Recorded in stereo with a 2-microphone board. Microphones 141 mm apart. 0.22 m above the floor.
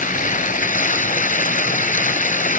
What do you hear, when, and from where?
0.0 s running water: 70° left (ahead or behind), 0.9 m